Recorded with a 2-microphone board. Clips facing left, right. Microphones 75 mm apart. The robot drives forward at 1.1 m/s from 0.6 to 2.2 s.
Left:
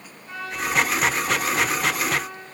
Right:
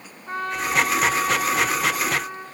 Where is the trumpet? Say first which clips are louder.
Right 3 dB; 50° right (ahead or behind), 1.5 m; by 2.5 s 45° right (ahead or behind), 1.6 m.